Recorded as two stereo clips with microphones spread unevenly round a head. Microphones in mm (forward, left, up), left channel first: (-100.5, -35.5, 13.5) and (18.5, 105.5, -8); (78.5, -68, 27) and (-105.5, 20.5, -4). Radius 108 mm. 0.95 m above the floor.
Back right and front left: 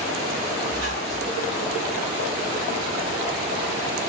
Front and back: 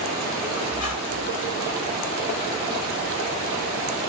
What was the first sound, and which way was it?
A squeak, 10° right.